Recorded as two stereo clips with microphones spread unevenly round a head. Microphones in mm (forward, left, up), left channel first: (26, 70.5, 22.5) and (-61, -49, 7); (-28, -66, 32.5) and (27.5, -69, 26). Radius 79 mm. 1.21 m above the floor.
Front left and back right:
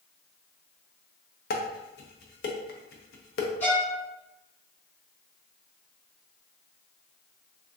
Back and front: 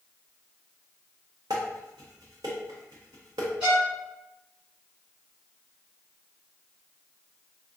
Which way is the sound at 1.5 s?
40° left.